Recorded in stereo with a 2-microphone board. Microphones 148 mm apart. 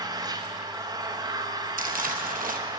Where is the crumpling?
75° right (ahead or behind), 1.0 m.